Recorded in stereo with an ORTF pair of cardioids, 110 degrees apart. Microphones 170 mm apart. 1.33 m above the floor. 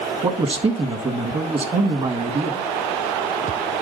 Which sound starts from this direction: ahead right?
A man speaking, at 0.2 s.